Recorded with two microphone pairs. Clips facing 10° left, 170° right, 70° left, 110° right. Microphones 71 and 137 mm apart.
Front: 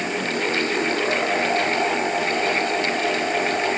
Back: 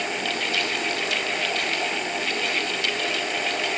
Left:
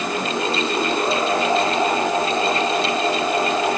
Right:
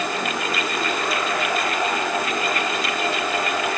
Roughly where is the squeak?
No squeak in this recording.